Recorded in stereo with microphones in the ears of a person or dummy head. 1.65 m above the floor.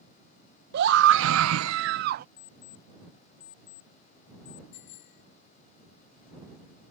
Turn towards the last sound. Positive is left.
turn(degrees=55)  # may be behind; listen again after turning